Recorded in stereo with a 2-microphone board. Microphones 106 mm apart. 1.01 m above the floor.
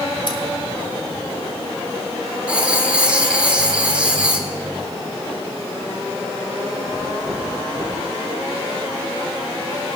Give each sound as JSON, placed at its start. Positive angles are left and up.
{"t": 0.3, "sound": "scissors", "side_deg": 50, "distance_m": 1.6}
{"t": 2.5, "sound": "writing", "side_deg": -10, "distance_m": 1.2}